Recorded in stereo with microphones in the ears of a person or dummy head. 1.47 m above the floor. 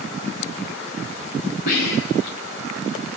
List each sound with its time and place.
1.7 s whispering: 55° left (ahead or behind), 0.9 m